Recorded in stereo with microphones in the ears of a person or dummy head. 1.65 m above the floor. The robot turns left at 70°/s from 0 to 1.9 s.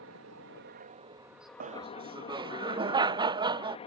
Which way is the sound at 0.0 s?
70° right.